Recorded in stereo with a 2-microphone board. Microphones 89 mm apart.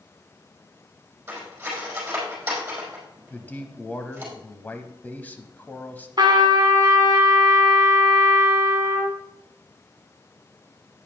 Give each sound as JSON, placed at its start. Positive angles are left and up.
{"t": 1.3, "sound": "cutlery clinking", "side_deg": -20, "distance_m": 4.5}
{"t": 3.3, "sound": "a man speaking", "side_deg": 20, "distance_m": 1.0}
{"t": 6.2, "sound": "a trumpet", "side_deg": -50, "distance_m": 1.7}